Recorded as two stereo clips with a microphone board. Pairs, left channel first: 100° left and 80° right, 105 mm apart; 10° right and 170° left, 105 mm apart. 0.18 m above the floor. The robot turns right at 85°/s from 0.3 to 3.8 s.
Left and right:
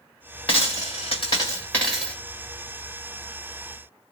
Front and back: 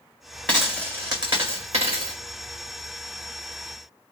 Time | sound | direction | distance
0.5 | a dropped coin | 65° left | 1.6 m